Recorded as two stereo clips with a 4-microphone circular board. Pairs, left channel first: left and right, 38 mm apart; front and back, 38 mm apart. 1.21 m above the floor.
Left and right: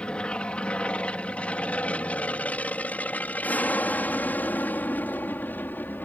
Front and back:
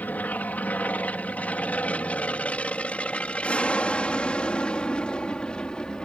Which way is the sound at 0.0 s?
30° left.